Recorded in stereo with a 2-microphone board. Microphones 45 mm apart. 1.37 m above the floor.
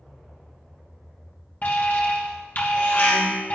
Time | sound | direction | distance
1.6 | an alarm | 40° left (ahead or behind) | 3 m